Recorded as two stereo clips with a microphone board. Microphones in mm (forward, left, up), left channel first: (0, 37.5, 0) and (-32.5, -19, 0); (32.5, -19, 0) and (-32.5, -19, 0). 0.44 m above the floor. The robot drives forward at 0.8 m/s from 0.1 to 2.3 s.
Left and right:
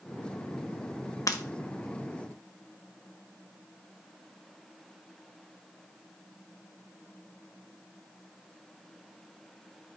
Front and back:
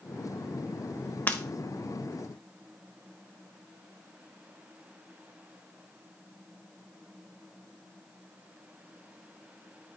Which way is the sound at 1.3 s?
55° left.